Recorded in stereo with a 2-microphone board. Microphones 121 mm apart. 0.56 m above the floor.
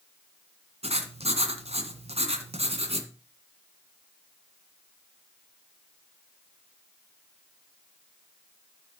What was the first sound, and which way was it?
Writing, 60° right (ahead or behind).